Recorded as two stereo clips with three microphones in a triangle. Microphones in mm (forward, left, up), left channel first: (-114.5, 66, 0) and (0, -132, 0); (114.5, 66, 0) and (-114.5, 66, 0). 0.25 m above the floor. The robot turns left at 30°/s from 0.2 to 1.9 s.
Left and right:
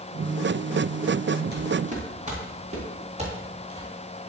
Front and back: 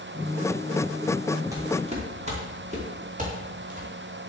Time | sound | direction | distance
1.5 | footsteps | 105° right | 5.5 m